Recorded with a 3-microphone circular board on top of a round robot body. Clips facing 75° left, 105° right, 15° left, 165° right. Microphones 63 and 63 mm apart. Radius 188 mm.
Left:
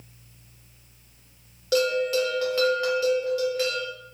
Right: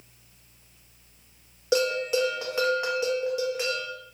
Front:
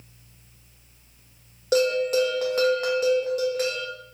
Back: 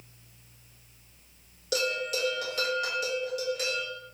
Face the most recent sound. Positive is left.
turn(degrees=-35)